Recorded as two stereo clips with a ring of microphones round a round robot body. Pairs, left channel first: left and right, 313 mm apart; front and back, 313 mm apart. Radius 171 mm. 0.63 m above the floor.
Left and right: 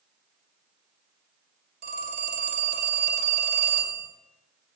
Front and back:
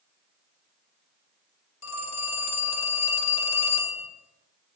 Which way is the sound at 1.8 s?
35° right.